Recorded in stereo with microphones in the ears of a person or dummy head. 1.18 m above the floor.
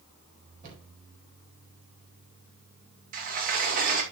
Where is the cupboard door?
50° right (ahead or behind), 4 m.